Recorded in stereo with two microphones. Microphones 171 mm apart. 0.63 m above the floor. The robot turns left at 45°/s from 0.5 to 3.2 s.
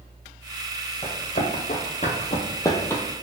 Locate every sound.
1.0 s running footsteps: 40° left (ahead or behind), 1.3 m; by 3.0 s 10° left (ahead or behind), 0.6 m